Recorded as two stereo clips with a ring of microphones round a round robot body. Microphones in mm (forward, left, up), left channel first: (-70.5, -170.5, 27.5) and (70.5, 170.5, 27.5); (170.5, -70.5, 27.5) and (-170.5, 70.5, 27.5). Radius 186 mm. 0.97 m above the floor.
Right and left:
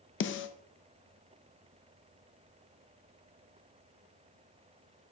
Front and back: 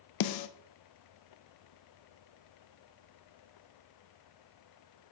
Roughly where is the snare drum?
Ahead right.